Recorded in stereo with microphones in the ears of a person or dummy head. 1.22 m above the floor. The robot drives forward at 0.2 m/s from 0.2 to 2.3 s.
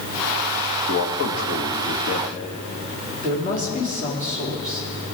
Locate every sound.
0.9 s a man speaking: 80° left, 1.6 m; by 2.3 s 75° left (ahead or behind), 1.7 m
3.2 s a woman speaking: 35° left (ahead or behind), 2.5 m